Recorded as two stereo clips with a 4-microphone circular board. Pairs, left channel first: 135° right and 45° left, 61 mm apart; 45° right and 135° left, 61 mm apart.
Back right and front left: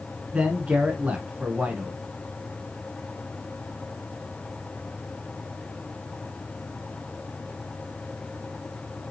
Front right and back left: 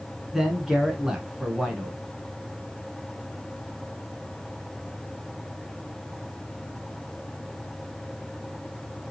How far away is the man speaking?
About 1.1 m.